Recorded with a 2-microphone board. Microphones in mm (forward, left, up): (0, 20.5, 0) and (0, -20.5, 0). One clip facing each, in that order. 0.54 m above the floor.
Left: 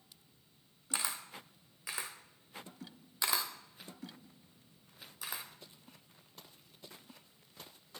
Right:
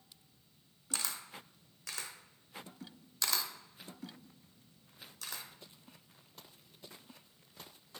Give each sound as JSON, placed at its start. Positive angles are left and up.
{"t": 0.9, "sound": "a camera shutter", "side_deg": 20, "distance_m": 0.7}